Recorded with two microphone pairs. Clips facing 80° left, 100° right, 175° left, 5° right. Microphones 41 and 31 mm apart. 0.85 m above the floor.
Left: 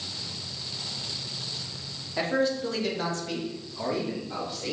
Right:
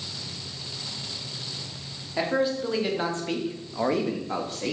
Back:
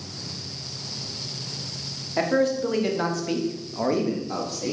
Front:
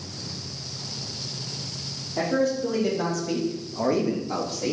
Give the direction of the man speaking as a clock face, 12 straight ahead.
6 o'clock.